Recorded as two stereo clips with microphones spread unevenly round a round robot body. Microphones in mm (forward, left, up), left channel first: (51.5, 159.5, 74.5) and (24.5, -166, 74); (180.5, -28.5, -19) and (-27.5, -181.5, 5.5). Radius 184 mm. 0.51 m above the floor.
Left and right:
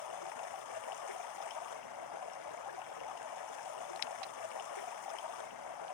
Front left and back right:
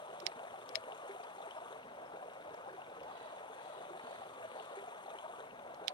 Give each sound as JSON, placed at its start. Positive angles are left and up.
{"t": 0.0, "sound": "running water", "azimuth_deg": 115}